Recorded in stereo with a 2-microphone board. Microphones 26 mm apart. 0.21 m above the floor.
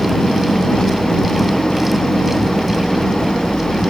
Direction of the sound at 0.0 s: 30° left (ahead or behind).